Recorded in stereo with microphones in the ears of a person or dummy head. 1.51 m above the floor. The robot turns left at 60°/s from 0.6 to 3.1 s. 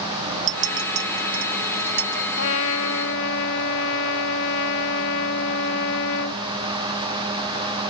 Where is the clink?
45° right (ahead or behind); by 2.2 s 40° right (ahead or behind).